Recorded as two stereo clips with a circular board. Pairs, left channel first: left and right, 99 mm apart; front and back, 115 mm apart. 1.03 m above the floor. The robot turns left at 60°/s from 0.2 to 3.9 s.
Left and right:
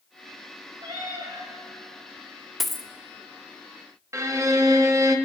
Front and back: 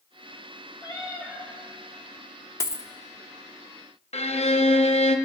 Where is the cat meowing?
45° right, 3 m; by 1.5 s 85° right, 3 m.